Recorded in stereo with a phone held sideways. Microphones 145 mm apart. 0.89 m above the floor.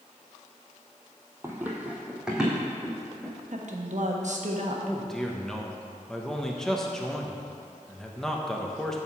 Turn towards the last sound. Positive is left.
turn(degrees=5)  # may be behind; listen again after turning